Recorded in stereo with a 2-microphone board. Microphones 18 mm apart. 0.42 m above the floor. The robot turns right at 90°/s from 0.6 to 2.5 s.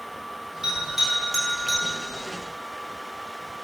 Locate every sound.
0.6 s a bell: 40° right (ahead or behind), 0.8 m; by 1.8 s 20° left (ahead or behind), 0.8 m